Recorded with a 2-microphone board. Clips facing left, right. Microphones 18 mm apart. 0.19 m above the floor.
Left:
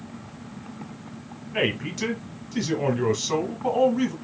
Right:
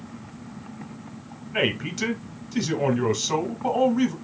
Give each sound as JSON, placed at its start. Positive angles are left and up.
{"t": 1.5, "sound": "a man speaking", "side_deg": -5, "distance_m": 1.4}